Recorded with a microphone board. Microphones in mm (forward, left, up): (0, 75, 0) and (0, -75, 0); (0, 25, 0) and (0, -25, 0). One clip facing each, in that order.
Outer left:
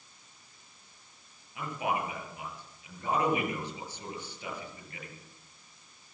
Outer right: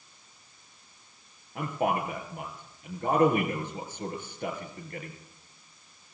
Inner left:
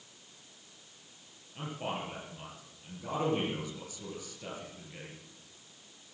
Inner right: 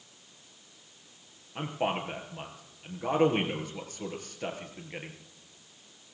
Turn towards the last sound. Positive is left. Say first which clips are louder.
# outer right 4 dB, inner right 6 dB
turn(degrees=-50)  # may be behind; listen again after turning